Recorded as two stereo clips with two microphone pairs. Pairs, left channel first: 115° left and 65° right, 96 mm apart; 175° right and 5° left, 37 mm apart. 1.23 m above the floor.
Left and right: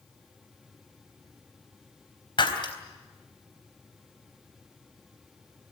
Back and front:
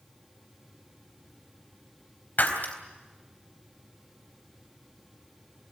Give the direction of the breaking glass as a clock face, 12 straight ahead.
7 o'clock.